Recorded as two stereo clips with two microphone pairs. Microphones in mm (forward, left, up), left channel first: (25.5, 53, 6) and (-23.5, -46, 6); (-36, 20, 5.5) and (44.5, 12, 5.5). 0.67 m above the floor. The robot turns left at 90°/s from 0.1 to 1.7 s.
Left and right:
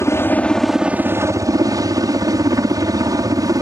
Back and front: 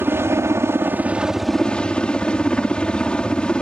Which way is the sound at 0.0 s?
25° left.